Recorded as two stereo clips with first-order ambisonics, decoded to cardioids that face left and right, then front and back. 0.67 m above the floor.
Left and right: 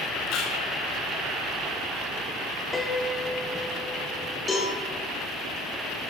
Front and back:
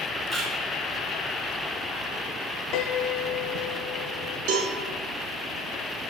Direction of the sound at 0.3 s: 120° left.